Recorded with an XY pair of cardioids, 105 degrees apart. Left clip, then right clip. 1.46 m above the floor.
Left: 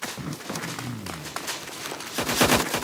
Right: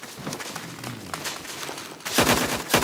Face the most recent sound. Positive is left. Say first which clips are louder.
# even
turn(degrees=35)